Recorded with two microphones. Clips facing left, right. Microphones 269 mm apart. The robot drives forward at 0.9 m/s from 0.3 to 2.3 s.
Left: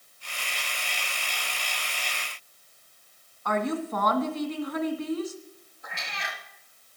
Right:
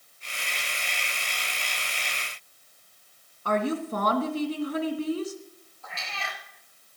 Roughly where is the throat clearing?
No throat clearing in this recording.